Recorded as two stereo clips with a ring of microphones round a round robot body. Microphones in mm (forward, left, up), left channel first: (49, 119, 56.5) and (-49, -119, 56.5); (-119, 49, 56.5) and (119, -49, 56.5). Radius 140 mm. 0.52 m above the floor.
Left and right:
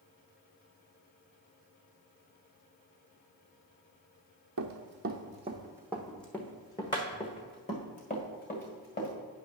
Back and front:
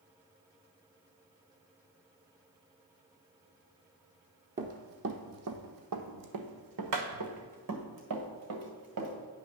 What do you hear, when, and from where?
4.6 s running footsteps: 85° right, 0.9 m; by 9.1 s 10° left, 2.5 m